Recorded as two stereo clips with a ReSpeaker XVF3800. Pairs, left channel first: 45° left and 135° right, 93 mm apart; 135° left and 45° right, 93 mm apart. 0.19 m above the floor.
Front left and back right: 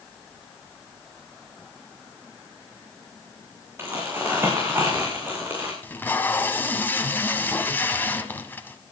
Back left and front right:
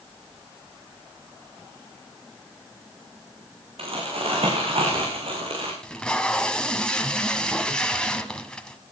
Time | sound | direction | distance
3.8 | crumpling | 70° right | 6.5 m
5.8 | tape being pulled | 70° left | 1.7 m